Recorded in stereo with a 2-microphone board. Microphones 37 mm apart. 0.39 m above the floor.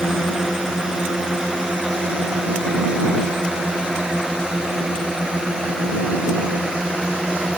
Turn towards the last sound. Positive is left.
turn(degrees=-20)  # may be behind; listen again after turning